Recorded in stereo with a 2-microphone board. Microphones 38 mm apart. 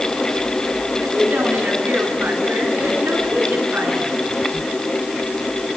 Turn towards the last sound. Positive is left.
turn(degrees=-75)  # may be behind; listen again after turning